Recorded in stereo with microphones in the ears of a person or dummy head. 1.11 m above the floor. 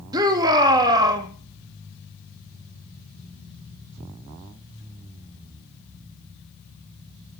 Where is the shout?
25° right (ahead or behind), 2 m.